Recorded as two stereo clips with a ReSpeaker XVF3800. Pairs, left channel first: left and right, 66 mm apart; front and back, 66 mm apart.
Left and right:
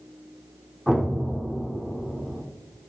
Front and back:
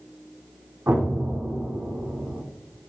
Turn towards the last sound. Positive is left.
turn(degrees=180)